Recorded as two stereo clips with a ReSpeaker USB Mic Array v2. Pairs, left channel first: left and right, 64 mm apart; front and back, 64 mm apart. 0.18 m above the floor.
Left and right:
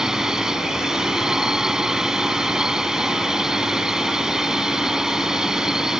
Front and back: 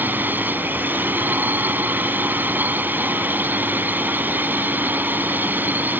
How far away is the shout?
No shout in this recording.